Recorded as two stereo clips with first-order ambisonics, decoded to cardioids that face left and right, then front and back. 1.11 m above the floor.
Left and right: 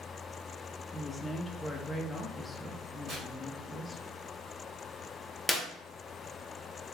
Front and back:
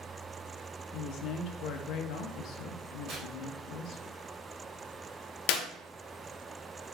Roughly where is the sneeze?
I don't hear a sneeze.